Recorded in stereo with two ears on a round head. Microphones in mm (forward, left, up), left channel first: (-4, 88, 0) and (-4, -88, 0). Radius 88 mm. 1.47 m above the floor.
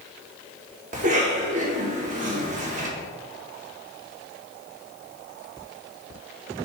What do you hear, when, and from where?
0.9 s a cough: 40° right (ahead or behind), 2 m